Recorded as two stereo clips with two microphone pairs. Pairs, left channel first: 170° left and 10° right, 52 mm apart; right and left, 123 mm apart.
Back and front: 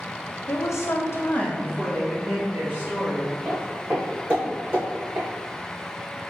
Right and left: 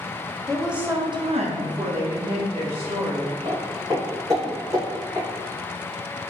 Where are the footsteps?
55° left, 1.9 m; by 5.3 s 30° left, 2.5 m.